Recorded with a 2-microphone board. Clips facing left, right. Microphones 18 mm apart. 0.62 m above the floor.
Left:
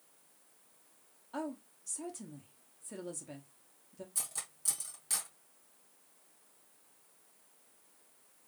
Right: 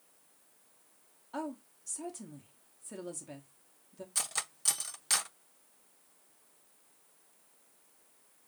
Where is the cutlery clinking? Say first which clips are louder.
Right 7 dB; 60° right (ahead or behind), 0.5 m.